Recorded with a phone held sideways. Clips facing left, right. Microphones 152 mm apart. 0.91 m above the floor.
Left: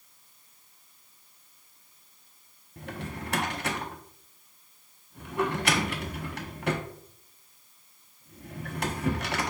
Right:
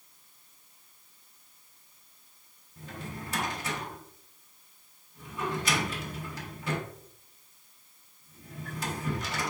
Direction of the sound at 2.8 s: 65° left (ahead or behind).